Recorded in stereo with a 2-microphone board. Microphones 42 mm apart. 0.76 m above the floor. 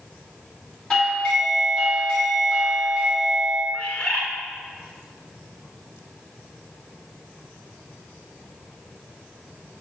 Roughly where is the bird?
Left.